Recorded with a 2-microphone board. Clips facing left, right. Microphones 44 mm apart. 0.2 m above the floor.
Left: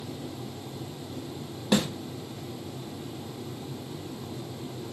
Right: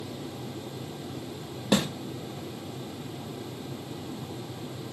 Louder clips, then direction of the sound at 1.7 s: Even; 20° right (ahead or behind).